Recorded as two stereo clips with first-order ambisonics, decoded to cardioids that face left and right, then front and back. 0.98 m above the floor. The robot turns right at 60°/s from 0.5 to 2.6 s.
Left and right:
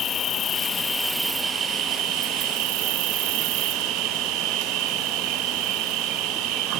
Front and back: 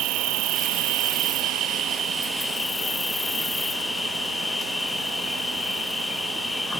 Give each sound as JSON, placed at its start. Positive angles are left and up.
{"t": 0.0, "sound": "an insect", "azimuth_deg": 150, "distance_m": 0.8}